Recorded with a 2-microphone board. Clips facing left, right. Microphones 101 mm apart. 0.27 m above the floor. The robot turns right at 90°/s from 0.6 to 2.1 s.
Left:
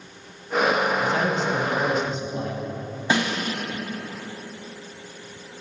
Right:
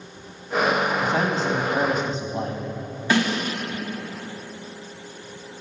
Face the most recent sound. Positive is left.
turn(degrees=20)  # may be behind; listen again after turning